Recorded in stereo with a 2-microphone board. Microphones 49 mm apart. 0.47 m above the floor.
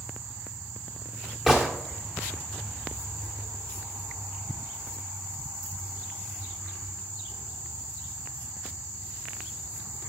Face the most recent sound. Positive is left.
turn(degrees=-10)  # may be behind; listen again after turning